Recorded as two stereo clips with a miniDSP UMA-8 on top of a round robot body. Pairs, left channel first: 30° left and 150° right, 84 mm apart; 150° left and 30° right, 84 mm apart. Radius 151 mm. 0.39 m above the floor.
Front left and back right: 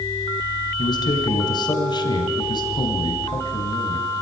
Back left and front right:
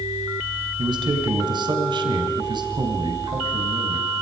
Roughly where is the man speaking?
Ahead.